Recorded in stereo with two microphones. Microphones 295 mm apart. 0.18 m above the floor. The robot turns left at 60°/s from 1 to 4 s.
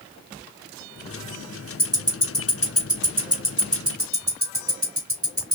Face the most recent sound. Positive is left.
turn(degrees=-50)  # may be behind; listen again after turning